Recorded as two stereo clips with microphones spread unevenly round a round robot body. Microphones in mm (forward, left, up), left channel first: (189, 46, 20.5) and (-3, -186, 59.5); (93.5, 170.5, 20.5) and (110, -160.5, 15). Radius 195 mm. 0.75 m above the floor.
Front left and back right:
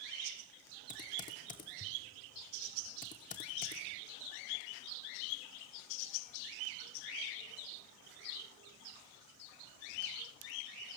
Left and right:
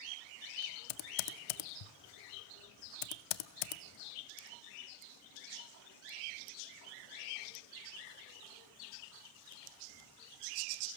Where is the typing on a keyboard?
125° left, 0.5 m.